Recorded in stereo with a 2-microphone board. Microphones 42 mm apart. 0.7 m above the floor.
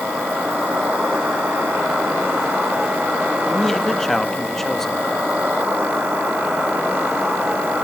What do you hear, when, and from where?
0.0 s an insect: 70° right (ahead or behind), 6.5 m
3.5 s a man speaking: 10° left (ahead or behind), 0.6 m